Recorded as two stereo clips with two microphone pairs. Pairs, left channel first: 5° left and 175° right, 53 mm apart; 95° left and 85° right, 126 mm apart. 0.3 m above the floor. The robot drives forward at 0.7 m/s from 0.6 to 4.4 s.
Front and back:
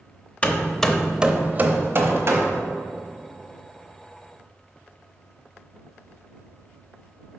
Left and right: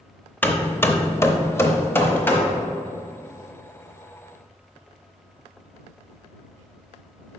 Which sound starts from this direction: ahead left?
Hammering, at 0.4 s.